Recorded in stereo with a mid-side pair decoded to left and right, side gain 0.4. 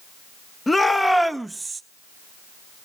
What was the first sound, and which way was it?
A shout, 20° left.